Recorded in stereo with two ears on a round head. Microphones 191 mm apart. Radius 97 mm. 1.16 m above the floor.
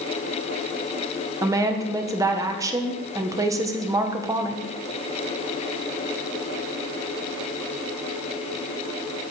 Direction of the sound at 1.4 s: 15° right (ahead or behind).